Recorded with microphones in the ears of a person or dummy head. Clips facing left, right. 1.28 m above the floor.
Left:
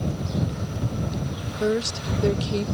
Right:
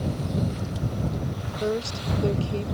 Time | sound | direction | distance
1.6 | a woman speaking | 25° left (ahead or behind) | ?